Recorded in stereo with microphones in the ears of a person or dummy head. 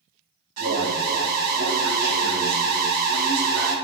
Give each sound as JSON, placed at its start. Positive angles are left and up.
{"t": 0.6, "sound": "an alarm", "side_deg": -40, "distance_m": 0.8}